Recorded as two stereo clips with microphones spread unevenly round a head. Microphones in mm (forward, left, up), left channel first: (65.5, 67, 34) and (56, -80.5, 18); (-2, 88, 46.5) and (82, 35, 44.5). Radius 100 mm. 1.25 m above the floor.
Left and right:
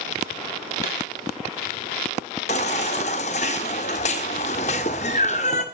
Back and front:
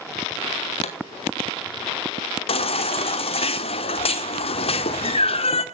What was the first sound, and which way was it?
A pop, 140° left.